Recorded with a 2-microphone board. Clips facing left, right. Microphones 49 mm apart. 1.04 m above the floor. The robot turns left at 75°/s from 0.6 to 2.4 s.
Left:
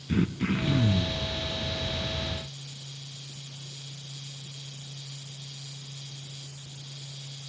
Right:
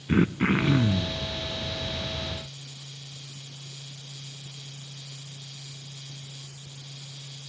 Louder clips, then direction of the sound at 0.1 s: Right 5 dB; 130° right.